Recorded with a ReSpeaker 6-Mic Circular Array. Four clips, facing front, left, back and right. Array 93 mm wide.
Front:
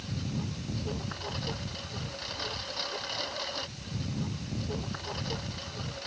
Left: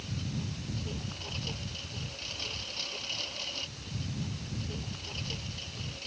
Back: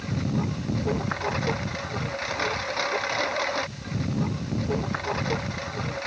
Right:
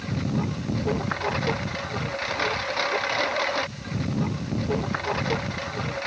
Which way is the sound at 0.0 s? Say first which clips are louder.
Right 11 dB, back 9 dB; 130° right.